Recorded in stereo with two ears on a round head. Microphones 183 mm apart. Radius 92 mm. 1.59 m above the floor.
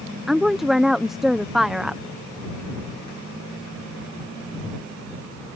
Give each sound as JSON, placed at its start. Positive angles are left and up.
{"t": 0.3, "sound": "a woman speaking", "side_deg": 0}